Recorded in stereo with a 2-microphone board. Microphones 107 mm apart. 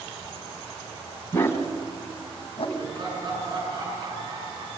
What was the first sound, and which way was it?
A dog barking, 20° left (ahead or behind).